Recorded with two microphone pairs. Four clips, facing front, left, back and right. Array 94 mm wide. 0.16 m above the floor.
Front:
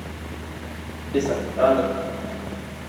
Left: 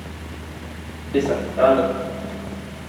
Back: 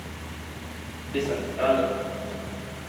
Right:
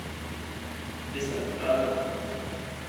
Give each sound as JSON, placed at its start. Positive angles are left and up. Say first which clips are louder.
{"t": 1.1, "sound": "running footsteps", "louder": "left 13 dB, front 5 dB", "azimuth_deg": 60, "distance_m": 1.6}